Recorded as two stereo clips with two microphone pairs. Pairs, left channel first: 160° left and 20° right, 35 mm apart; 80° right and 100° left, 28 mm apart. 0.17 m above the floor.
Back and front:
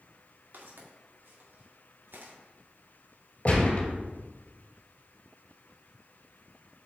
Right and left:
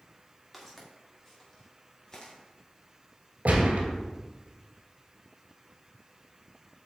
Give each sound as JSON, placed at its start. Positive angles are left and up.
{"t": 0.5, "sound": "footsteps", "azimuth_deg": 0, "distance_m": 3.0}
{"t": 3.5, "sound": "a gunshot", "azimuth_deg": 115, "distance_m": 2.0}